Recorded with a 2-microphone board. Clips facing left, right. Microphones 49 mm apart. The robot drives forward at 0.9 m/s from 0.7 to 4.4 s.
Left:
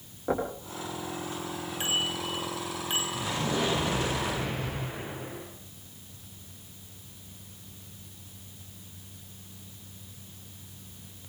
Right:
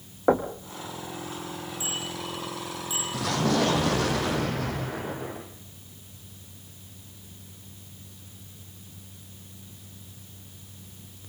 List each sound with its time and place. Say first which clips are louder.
0.3 s knocking: right 7 dB; 55° right (ahead or behind), 5 m
1.8 s a bicycle bell: left 6 dB; 60° left (ahead or behind), 10 m; by 3.0 s 55° left (ahead or behind), 10.5 m
3.1 s an explosion: right 8 dB; 75° right (ahead or behind), 7.5 m; by 5.5 s 65° right (ahead or behind), 8 m